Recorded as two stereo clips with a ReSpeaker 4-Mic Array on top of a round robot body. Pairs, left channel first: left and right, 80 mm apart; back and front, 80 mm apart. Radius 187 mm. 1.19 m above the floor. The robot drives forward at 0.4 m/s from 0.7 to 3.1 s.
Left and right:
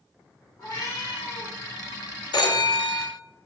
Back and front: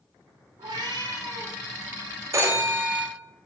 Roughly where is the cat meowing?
Ahead left.